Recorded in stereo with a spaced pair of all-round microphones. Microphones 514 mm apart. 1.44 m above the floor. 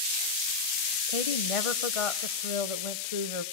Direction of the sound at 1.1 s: 80° left.